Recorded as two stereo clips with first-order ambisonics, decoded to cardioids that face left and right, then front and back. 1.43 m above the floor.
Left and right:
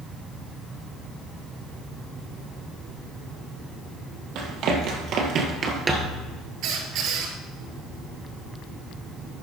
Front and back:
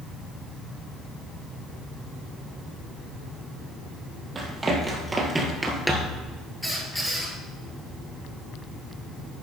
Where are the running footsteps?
110° right, 2.5 m; by 6.2 s 10° right, 1.4 m.